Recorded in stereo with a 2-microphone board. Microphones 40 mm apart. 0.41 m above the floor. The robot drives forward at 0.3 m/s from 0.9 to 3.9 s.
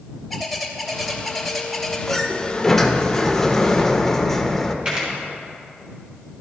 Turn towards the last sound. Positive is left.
turn(degrees=-30)  # may be behind; listen again after turning